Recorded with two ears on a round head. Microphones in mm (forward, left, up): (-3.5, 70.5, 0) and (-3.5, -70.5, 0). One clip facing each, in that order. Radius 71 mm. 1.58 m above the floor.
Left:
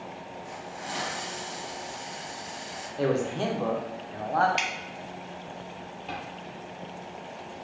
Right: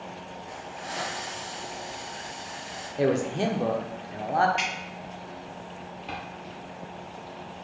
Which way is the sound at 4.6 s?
65° left (ahead or behind).